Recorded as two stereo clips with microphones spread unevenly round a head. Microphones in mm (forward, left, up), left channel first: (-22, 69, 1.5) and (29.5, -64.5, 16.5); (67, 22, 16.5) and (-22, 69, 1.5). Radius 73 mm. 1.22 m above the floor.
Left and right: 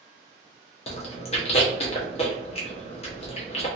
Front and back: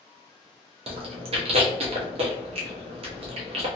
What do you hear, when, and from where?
0.9 s chewing: 155° left, 0.8 m